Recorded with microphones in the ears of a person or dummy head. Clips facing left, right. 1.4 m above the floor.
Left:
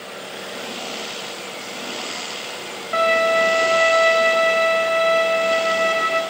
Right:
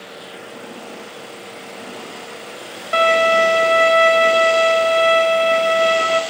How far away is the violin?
About 0.6 m.